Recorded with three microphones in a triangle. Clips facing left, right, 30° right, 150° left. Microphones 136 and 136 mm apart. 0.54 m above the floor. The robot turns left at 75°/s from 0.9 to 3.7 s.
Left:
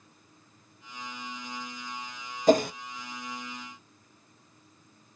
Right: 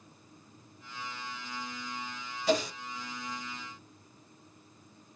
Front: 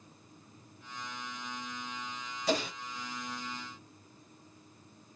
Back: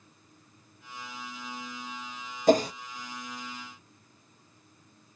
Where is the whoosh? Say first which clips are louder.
Left 7 dB, back 10 dB; 120° left, 0.6 m; by 2.7 s 100° left, 0.6 m.